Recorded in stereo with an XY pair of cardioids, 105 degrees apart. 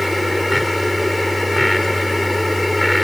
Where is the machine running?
15° left.